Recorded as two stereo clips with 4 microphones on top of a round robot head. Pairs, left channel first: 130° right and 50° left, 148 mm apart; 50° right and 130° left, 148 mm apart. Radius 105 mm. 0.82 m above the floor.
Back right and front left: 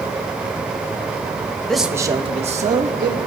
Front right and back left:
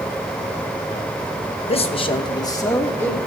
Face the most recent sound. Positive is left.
turn(degrees=25)